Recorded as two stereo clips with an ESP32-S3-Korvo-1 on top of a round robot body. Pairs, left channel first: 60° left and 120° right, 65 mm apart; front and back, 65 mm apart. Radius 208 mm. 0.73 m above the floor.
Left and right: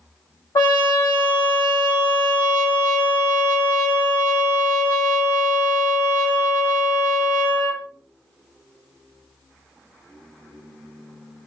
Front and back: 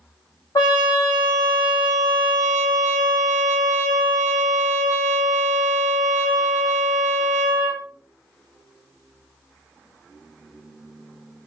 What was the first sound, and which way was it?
A trumpet, 30° left.